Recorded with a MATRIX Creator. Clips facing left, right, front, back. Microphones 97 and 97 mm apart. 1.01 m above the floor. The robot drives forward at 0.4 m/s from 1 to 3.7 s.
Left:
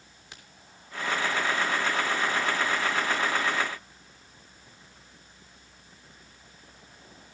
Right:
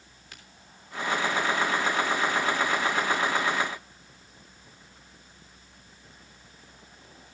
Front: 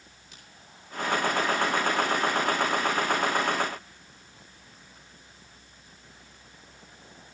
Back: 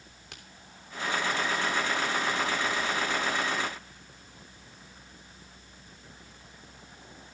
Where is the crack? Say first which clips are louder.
Left 1 dB, back 6 dB; 160° left, 3 m.